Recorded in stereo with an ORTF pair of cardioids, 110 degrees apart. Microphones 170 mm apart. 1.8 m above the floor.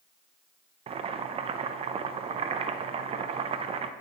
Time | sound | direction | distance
0.9 | boiling | 35° right | 0.5 m